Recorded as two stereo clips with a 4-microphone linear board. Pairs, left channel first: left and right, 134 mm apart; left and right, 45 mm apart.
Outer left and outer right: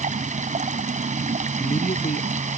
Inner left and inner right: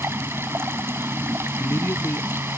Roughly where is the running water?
Right.